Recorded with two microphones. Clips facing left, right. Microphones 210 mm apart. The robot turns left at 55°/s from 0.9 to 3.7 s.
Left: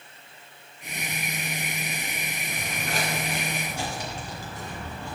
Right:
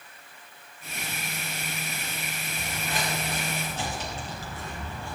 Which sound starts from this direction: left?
Footsteps, at 2.5 s.